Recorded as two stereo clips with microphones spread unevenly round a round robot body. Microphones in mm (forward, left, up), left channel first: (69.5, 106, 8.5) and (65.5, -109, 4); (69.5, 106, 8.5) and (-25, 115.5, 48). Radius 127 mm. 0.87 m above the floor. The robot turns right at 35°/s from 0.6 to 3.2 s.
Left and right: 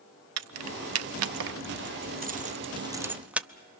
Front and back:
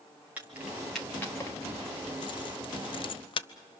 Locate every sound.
0.4 s keys jangling: 100° right, 0.7 m; by 3.5 s 5° right, 0.7 m